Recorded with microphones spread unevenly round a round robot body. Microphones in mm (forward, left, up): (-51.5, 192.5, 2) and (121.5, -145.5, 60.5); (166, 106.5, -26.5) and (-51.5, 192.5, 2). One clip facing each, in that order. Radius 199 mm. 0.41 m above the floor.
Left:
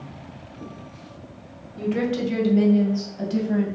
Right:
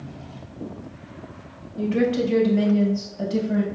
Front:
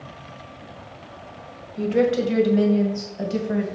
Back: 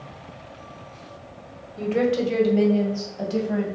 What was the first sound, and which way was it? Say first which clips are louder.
A woman speaking: right 3 dB, front 2 dB; 45° left.